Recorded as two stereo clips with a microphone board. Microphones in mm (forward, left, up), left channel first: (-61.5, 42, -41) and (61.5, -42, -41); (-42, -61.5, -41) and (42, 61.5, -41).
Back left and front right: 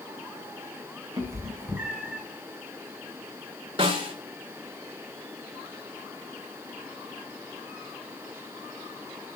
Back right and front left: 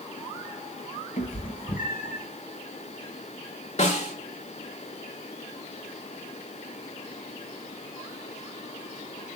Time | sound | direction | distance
1.2 | a cat meowing | 100° right | 1.9 m
3.8 | a snare drum | 85° right | 1.7 m